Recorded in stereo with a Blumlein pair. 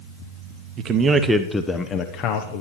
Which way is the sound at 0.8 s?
30° right.